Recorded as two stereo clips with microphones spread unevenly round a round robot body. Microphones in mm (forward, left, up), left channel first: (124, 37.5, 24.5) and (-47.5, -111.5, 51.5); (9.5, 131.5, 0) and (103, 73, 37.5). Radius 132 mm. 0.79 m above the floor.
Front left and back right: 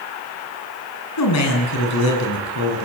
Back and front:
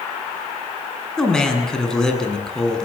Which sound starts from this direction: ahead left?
A man speaking, at 1.2 s.